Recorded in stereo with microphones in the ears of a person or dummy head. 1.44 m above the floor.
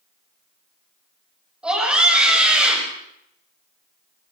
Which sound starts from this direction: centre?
A scream, at 1.6 s.